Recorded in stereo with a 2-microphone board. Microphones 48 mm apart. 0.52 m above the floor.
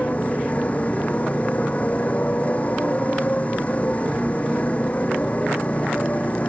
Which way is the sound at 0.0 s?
30° left (ahead or behind).